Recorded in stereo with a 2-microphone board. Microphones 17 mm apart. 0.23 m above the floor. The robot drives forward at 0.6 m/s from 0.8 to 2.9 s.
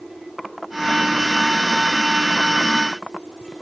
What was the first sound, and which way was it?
Only background noise.